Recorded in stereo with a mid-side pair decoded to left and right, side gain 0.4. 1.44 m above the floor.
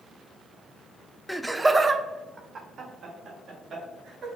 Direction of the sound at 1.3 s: 5° left.